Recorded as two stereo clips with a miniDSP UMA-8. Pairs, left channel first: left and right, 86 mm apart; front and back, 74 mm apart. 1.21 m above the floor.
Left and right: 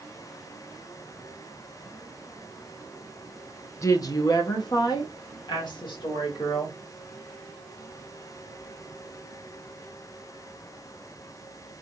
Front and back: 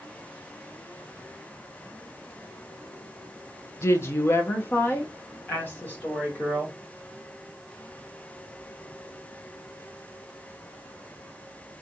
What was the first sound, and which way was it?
A woman speaking, 45° left.